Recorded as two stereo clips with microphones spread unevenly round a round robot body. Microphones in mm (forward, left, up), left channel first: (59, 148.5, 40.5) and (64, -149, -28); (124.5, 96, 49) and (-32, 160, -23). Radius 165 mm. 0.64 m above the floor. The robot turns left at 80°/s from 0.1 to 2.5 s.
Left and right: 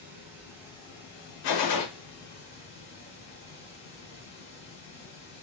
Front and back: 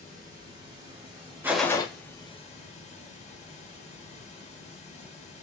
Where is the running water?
130° right, 1.4 m; by 5.4 s 40° left, 1.4 m.